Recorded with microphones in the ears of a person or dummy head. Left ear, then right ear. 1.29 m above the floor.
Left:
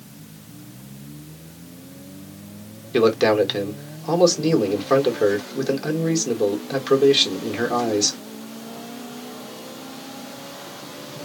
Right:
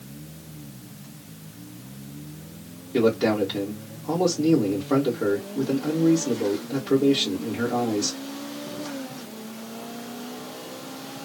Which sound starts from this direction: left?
A man speaking, at 2.9 s.